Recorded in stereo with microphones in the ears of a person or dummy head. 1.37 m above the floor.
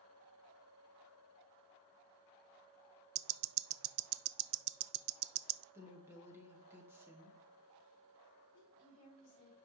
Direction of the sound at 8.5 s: 40° left (ahead or behind).